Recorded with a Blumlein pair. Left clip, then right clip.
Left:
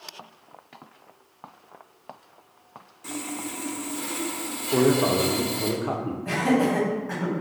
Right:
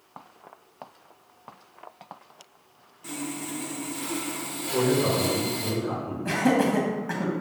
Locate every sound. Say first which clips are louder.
3.0 s sawing: left 1 dB; 5° left, 0.7 m
4.7 s a man speaking: left 3 dB; 60° left, 0.7 m
6.2 s laughter: even; 25° right, 1.2 m